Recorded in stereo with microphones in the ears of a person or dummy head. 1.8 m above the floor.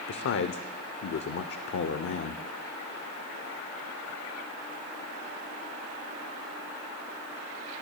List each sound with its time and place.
0.1 s a man speaking: 65° left (ahead or behind), 0.6 m